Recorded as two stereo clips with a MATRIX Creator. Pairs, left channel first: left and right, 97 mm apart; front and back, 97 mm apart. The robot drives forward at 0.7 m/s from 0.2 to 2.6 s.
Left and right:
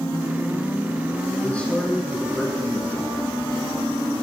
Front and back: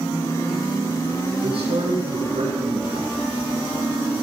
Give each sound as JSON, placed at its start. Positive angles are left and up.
{"t": 1.4, "sound": "a man speaking", "azimuth_deg": 165, "distance_m": 9.0}